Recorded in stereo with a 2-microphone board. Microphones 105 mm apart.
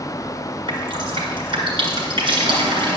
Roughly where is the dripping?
Right.